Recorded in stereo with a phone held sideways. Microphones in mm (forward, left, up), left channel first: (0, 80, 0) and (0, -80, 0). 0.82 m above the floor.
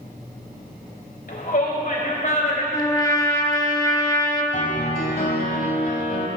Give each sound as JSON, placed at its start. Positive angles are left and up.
{"t": 1.3, "sound": "a shout", "side_deg": 65, "distance_m": 3.5}
{"t": 2.7, "sound": "a trumpet", "side_deg": 25, "distance_m": 1.4}
{"t": 4.5, "sound": "a piano", "side_deg": 55, "distance_m": 1.6}